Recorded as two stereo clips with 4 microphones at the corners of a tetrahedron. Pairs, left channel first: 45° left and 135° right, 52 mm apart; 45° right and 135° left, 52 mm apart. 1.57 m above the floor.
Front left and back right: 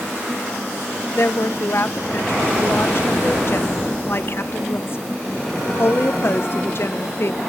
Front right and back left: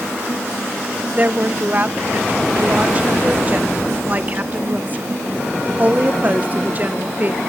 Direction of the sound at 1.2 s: 80° left.